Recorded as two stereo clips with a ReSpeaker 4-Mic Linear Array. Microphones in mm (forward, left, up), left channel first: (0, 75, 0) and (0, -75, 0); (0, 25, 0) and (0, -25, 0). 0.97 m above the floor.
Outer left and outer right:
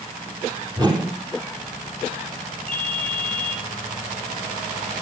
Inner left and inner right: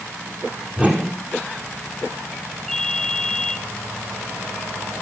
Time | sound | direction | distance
0.8 | a whoosh | 30° right (ahead or behind) | 3.5 m
2.7 | a ringtone | 5° left (ahead or behind) | 5.5 m